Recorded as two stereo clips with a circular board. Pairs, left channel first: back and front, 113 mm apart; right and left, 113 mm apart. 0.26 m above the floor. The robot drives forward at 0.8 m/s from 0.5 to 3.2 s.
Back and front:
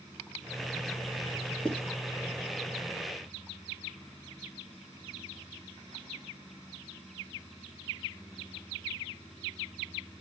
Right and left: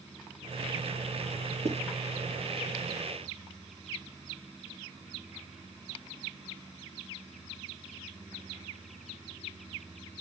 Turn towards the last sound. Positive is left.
turn(degrees=125)